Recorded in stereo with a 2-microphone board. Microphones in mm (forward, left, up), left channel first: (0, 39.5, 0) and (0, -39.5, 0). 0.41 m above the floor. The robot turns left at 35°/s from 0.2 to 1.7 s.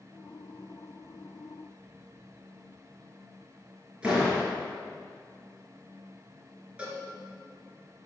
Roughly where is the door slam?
Centre.